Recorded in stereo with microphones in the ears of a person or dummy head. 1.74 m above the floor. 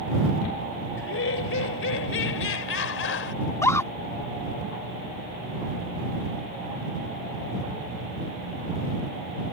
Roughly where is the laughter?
Left.